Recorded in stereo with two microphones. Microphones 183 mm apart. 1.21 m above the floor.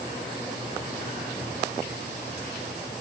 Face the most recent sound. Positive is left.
No sound to turn to.